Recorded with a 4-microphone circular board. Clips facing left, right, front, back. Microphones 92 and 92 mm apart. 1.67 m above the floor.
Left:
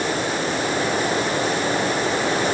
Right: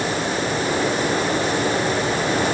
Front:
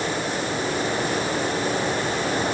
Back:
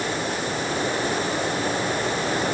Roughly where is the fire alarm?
I don't hear a fire alarm.